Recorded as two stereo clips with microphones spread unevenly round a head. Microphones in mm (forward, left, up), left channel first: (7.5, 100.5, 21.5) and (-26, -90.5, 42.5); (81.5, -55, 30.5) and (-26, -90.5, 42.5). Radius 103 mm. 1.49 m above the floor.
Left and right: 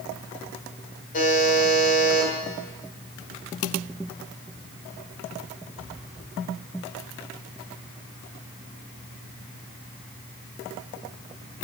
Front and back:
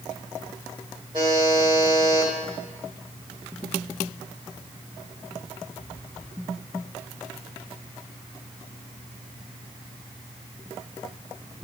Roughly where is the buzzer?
Behind left.